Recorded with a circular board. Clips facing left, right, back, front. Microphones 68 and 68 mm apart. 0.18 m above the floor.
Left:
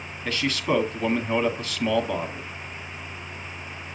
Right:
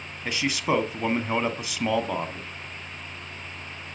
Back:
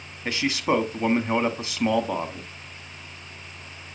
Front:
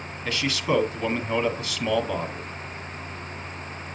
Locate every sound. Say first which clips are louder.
0.2 s a man speaking: even, back 2 dB; 145° right, 1.2 m